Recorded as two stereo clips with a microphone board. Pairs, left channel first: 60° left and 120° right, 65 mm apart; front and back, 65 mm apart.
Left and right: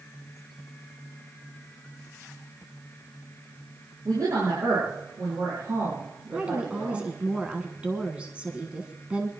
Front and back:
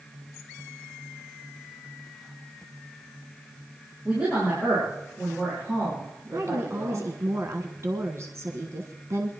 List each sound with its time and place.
4.0 s a woman speaking: 105° right, 7 m; by 7.1 s 120° right, 7 m
6.3 s a woman speaking: 175° left, 1.5 m